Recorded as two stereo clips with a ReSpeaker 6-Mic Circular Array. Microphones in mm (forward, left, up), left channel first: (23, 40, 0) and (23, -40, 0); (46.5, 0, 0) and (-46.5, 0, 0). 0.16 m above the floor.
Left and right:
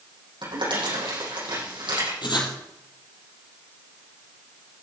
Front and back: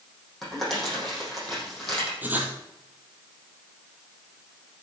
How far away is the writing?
About 3 m.